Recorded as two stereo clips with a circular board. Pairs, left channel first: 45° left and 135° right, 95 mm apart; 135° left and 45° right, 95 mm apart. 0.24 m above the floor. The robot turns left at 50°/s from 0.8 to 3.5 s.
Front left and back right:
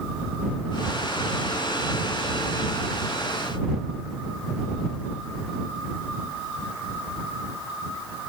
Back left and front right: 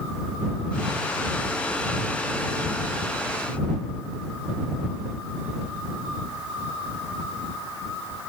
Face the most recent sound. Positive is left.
No sound to turn to.